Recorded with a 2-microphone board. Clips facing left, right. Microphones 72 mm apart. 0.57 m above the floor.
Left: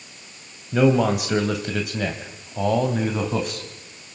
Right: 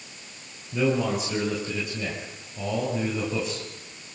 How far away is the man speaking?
About 3 m.